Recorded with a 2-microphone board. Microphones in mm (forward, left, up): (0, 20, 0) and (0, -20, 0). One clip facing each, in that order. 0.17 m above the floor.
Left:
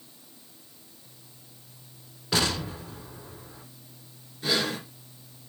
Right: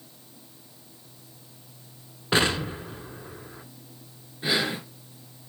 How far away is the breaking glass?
No breaking glass in this recording.